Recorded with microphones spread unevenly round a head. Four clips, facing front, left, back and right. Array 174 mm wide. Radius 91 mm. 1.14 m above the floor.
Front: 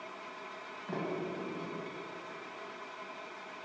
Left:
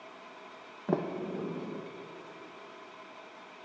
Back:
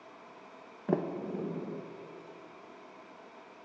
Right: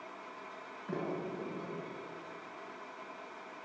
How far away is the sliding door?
About 1.2 m.